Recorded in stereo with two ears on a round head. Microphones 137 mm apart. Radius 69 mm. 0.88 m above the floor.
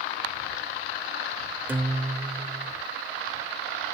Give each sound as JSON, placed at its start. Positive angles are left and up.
{"t": 1.7, "sound": "a guitar", "side_deg": -15}